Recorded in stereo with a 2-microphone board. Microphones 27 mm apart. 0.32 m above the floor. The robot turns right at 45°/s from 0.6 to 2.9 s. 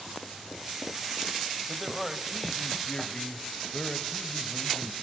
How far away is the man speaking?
About 1.5 m.